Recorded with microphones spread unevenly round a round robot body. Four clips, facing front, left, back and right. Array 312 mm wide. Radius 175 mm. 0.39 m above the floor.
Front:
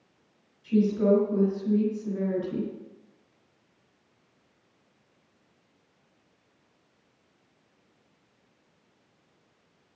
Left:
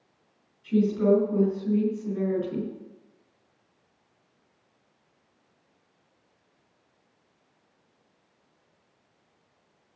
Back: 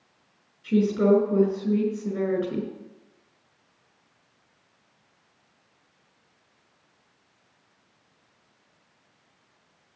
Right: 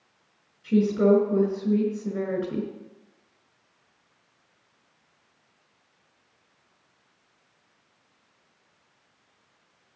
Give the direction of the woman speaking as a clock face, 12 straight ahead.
5 o'clock.